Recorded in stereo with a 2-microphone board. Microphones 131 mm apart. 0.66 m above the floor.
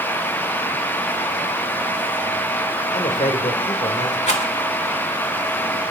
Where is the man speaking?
70° left (ahead or behind), 2 m.